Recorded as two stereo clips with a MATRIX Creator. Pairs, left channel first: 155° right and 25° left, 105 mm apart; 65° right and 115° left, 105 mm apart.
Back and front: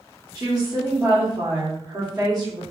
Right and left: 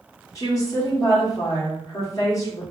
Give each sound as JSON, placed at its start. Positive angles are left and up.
{"t": 0.3, "sound": "a woman speaking", "azimuth_deg": -20, "distance_m": 1.8}